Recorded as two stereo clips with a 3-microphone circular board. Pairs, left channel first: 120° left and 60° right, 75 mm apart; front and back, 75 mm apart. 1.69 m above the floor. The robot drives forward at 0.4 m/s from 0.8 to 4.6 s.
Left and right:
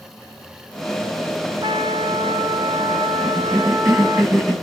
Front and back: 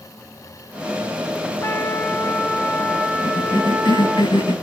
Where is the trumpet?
60° right, 1.6 m; by 4.2 s 100° right, 1.4 m.